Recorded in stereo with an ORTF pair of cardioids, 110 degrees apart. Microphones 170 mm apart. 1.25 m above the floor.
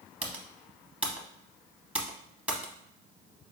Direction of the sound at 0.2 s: 5° right.